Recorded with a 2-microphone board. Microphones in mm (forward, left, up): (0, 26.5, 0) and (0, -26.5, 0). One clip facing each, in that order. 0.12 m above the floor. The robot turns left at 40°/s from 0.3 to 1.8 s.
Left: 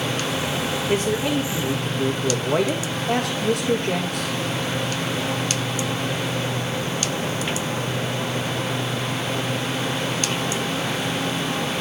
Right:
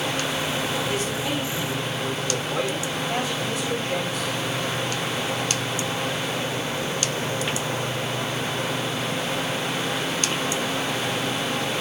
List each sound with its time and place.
0.9 s a man speaking: 145° left, 5.5 m; by 4.3 s 110° left, 5.5 m